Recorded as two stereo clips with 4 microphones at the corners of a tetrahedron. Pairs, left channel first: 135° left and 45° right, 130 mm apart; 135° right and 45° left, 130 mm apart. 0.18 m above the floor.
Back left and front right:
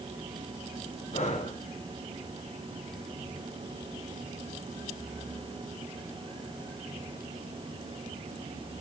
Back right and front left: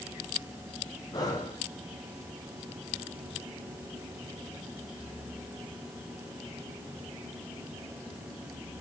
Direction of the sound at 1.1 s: 165° left.